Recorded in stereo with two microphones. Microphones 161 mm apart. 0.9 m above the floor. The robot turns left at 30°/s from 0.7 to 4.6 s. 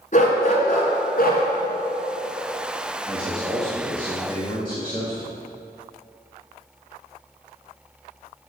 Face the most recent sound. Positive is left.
turn(degrees=150)